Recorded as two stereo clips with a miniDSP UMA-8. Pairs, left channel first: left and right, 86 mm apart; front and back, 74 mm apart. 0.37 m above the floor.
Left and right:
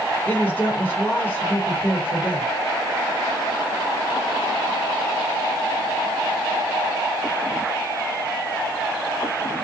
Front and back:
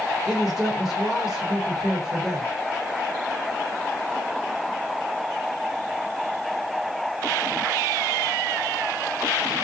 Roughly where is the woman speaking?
Left.